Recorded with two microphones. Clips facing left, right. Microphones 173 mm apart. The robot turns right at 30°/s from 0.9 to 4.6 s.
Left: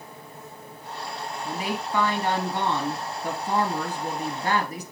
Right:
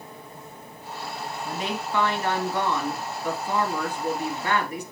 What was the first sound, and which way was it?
A woman speaking, 10° left.